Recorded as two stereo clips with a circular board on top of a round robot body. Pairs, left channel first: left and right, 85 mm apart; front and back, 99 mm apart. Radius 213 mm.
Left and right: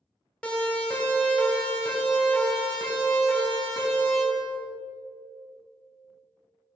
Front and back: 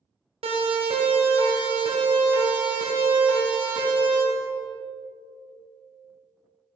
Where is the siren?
170° left, 3 m; by 4.2 s 150° left, 5.5 m.